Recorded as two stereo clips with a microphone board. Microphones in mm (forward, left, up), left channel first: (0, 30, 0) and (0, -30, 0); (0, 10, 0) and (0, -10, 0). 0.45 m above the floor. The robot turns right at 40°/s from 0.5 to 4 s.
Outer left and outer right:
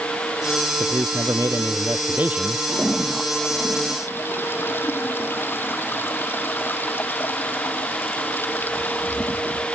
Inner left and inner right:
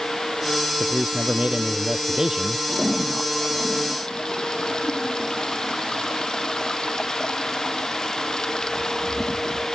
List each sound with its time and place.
0.8 s a man speaking: 85° right; by 2.6 s 15° right
2.7 s a toilet flushing: 15° right; by 9.7 s 35° left